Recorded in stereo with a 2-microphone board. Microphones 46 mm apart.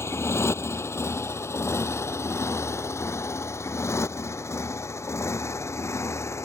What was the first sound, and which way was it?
A motorcycle, 70° left (ahead or behind).